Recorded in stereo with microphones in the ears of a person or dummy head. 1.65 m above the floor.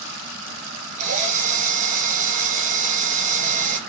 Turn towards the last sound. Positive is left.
turn(degrees=-40)  # may be behind; listen again after turning